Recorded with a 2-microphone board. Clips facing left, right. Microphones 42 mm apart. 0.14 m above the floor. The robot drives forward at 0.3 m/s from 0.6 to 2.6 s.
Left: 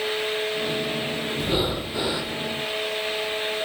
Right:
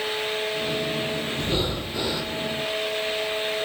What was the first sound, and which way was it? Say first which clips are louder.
Breathing: left 4 dB; 15° left (ahead or behind).